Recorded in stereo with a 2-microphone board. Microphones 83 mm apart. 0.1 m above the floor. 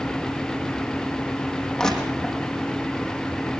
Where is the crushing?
5° left (ahead or behind), 5 m.